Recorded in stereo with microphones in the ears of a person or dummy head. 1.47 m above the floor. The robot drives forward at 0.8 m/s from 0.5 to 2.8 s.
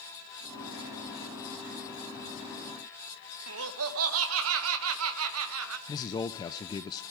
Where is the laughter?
75° right (ahead or behind), 1.2 m.